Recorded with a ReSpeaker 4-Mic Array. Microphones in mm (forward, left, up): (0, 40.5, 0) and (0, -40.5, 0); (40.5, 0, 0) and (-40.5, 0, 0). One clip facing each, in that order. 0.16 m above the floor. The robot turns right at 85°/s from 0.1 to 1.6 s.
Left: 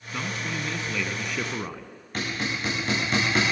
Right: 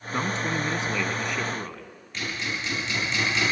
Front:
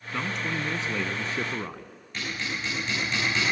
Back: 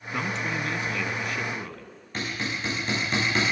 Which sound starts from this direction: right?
A man speaking, at 0.1 s.